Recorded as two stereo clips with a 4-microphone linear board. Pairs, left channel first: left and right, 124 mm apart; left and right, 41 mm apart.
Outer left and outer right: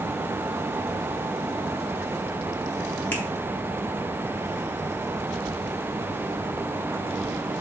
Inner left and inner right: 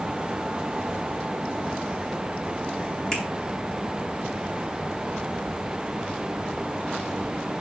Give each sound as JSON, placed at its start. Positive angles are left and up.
{"t": 3.1, "sound": "a finger snap", "side_deg": 15, "distance_m": 4.0}